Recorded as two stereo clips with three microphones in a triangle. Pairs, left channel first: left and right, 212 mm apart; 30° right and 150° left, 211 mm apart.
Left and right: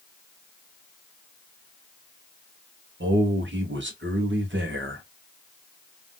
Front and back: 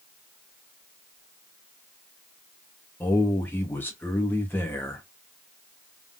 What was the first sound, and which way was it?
A man speaking, 110° right.